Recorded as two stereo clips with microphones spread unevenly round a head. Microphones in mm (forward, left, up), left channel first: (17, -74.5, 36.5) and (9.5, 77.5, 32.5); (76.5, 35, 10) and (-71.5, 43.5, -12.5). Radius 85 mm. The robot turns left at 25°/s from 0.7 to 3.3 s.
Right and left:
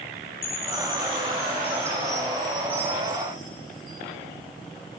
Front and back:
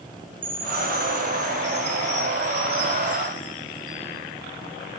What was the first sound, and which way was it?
A chime, 140° right.